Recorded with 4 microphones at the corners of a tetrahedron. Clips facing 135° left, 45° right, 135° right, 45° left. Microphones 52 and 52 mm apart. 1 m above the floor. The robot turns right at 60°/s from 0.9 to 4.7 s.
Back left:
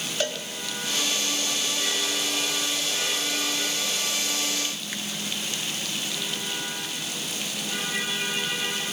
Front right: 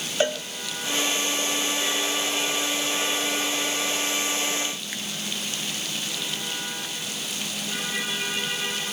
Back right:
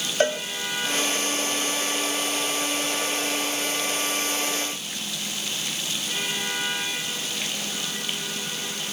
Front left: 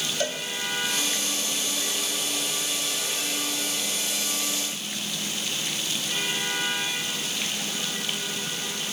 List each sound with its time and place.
0.2 s a cowbell: 105° right, 1.1 m